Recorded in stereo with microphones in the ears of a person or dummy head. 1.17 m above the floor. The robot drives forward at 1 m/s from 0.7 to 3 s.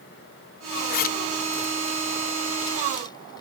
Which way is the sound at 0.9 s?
50° left (ahead or behind).